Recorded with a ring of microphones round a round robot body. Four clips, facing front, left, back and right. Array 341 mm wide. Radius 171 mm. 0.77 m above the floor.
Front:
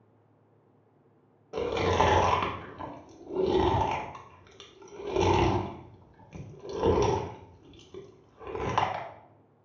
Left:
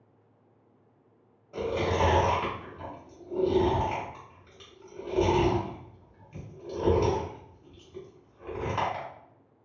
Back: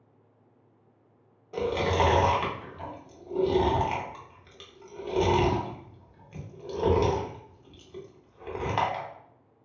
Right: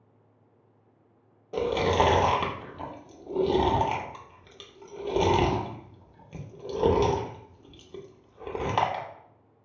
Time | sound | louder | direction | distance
1.5 | chewing | right 4 dB, even | 70° right | 0.7 m